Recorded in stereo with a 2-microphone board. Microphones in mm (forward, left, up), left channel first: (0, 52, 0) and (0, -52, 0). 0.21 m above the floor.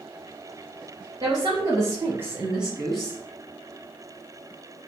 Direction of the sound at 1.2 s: 45° right (ahead or behind).